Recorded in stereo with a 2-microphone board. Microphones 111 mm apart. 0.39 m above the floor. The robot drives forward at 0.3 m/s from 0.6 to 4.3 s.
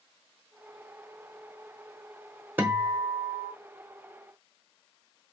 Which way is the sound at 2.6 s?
20° right (ahead or behind).